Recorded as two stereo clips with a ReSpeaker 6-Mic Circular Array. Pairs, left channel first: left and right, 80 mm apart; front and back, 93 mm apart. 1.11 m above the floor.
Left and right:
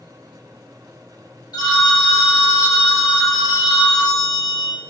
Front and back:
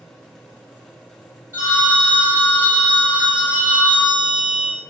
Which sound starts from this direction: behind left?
A phone ringing, at 1.5 s.